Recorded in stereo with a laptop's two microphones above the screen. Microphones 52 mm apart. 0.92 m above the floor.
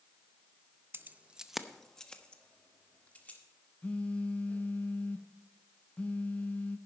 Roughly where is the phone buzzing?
Left.